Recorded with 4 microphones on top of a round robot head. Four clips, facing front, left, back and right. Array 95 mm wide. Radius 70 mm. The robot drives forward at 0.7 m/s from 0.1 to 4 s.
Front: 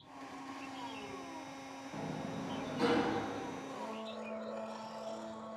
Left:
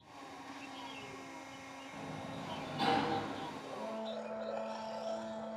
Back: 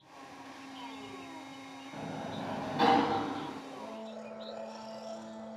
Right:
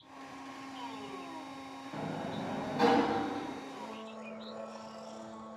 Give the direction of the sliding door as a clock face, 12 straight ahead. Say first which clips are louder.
Right 7 dB, back 2 dB; 3 o'clock.